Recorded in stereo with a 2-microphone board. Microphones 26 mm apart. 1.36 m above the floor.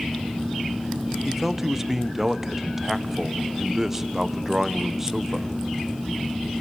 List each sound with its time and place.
1.2 s a man speaking: 15° right (ahead or behind), 1.0 m